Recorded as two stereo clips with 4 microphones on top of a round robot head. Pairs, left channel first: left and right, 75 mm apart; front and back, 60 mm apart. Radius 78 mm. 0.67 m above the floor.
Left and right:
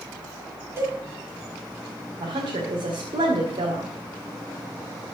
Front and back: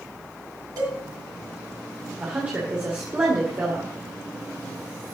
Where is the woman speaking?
115° right, 2 m.